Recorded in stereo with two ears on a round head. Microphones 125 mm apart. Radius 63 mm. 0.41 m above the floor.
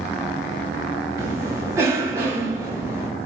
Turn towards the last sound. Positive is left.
turn(degrees=-20)  # may be behind; listen again after turning